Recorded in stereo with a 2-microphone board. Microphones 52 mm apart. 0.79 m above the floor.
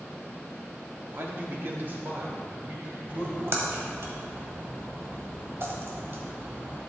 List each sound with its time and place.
1.1 s a man speaking: 45° right (ahead or behind), 1.2 m; by 3.9 s 40° right (ahead or behind), 4 m
3.1 s a splash: 55° right (ahead or behind), 1.7 m